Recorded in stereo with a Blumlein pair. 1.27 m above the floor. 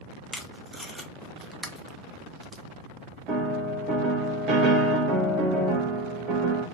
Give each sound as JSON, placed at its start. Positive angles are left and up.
{"t": 0.3, "sound": "tape being pulled", "azimuth_deg": 0, "distance_m": 0.7}
{"t": 3.3, "sound": "a piano", "azimuth_deg": -35, "distance_m": 1.1}